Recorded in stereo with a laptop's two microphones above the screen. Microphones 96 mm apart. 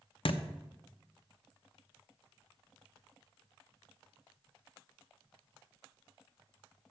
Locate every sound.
0.2 s a thud: 60° left (ahead or behind), 0.7 m